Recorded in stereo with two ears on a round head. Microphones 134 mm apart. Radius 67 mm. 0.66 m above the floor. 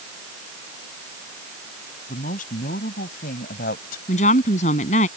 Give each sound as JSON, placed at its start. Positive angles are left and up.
{"t": 2.1, "sound": "a man speaking", "side_deg": 60}
{"t": 4.1, "sound": "a woman speaking", "side_deg": 50}